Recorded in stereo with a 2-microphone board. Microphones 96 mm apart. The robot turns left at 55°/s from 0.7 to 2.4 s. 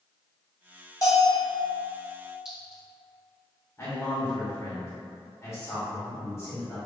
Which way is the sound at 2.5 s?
10° right (ahead or behind).